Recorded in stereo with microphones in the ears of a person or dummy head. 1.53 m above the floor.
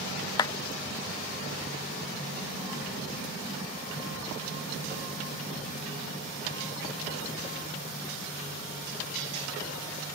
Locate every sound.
0.4 s a clap: 20° left (ahead or behind)